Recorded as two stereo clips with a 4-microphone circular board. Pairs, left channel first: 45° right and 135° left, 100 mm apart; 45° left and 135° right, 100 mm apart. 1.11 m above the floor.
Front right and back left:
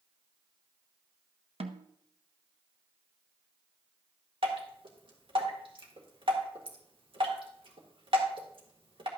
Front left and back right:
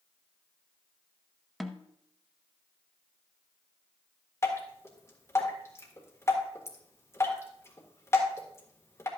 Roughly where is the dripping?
Left.